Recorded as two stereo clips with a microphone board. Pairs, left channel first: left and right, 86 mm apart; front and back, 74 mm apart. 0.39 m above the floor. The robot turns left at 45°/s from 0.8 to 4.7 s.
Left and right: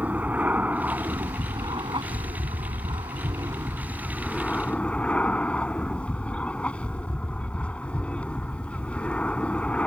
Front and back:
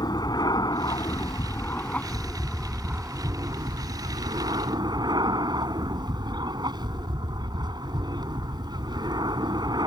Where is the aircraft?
20° right; by 9.9 s 165° left.